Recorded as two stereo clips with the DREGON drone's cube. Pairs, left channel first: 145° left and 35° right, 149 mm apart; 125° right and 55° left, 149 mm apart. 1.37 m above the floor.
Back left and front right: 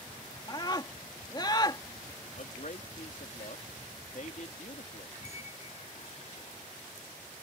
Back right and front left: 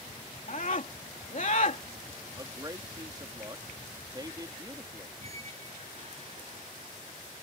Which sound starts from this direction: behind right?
A scream, at 0.5 s.